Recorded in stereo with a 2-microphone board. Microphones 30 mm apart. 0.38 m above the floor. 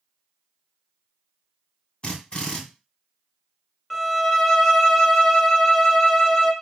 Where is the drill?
35° left (ahead or behind), 1.1 m.